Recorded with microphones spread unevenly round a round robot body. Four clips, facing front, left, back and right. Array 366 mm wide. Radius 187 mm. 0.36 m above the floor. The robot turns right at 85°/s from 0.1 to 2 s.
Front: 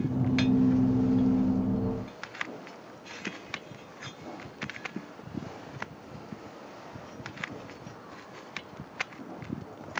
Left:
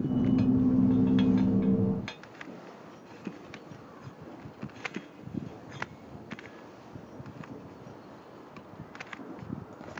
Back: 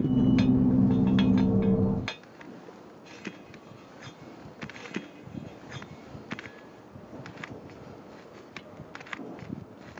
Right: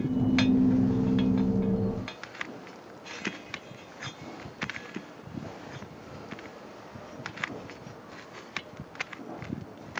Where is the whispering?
No whispering in this recording.